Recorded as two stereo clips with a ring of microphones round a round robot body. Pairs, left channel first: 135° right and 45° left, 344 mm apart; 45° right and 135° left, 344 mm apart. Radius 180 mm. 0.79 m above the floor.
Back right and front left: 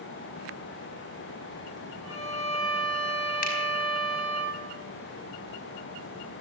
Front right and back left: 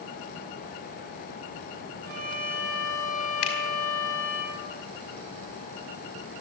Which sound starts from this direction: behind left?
A violin, at 2.0 s.